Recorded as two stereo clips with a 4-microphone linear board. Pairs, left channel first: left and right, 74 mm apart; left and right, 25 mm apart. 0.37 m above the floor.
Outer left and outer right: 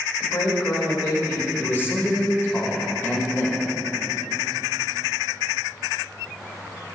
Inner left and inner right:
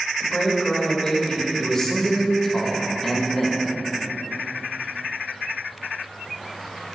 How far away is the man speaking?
About 1.2 m.